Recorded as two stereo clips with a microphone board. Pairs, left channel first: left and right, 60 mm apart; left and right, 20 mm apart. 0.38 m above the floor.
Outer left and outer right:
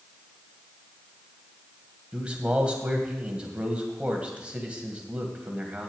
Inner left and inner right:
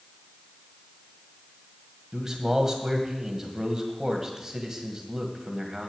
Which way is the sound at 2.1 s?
20° right (ahead or behind).